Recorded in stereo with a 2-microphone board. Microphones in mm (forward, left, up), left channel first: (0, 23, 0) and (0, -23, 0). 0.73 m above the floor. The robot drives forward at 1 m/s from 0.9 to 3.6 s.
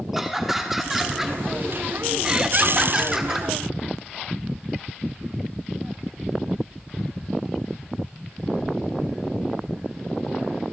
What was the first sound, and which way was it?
Laughter, 5° right (ahead or behind).